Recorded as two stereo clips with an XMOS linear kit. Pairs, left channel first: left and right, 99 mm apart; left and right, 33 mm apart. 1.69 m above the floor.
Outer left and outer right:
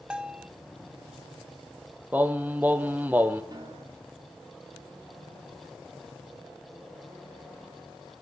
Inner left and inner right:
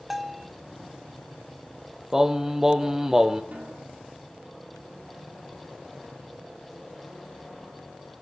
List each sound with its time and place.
0.1 s a bell: 10° right (ahead or behind), 0.6 m
2.1 s singing: 15° right (ahead or behind), 0.9 m
3.5 s a snare drum: 45° right (ahead or behind), 3 m